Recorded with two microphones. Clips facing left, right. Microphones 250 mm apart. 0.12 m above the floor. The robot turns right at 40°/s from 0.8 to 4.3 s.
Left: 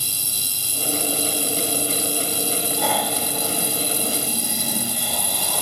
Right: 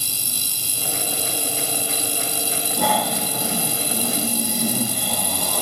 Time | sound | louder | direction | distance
2.8 | snoring | right 6 dB | 120° right | 6.5 m